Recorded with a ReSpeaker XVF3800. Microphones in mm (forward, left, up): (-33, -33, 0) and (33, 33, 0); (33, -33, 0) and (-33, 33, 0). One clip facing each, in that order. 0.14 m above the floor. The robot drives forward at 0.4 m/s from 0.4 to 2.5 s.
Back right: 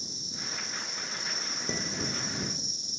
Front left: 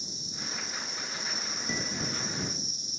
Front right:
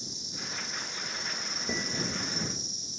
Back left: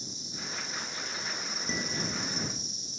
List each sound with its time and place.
0.0 s an insect: 110° left, 3 m; by 3.0 s 125° left, 3.5 m
1.7 s dishes clattering: 120° right, 0.9 m; by 2.6 s 140° right, 1.0 m